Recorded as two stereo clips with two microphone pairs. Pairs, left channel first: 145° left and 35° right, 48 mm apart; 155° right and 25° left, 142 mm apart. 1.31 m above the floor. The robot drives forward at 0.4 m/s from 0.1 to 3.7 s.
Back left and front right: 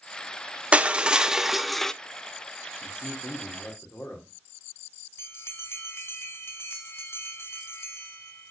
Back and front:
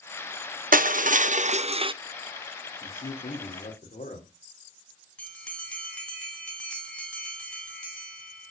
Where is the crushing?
30° left, 0.8 m; by 1.9 s 70° left, 0.5 m.